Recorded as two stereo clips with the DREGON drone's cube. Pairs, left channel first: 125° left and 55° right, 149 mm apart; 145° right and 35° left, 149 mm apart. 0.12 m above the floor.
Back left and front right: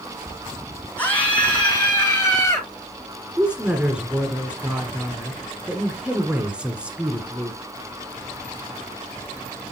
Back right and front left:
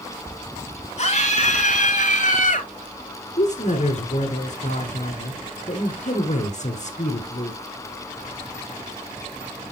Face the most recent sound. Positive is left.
turn(degrees=-135)